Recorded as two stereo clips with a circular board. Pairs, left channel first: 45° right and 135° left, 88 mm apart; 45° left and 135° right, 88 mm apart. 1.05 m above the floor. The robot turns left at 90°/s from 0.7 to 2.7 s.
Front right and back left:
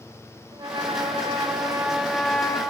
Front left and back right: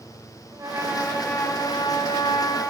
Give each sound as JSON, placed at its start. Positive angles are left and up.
{"t": 0.5, "sound": "a trumpet", "azimuth_deg": 170, "distance_m": 3.0}